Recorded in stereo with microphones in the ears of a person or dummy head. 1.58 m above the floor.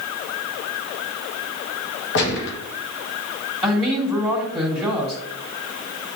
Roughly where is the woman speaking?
Right.